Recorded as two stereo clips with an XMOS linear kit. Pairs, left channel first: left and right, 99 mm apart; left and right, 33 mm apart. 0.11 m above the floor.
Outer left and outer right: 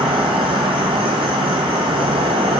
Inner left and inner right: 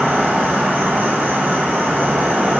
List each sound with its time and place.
0.0 s an insect: 70° right (ahead or behind), 0.8 m